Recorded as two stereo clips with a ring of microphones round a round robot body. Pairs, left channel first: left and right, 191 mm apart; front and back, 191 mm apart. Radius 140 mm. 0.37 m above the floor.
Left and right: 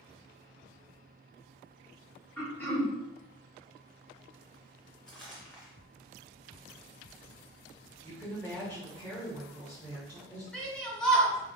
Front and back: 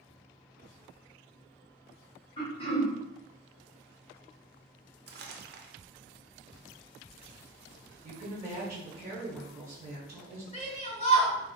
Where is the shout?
5° left, 1.8 m.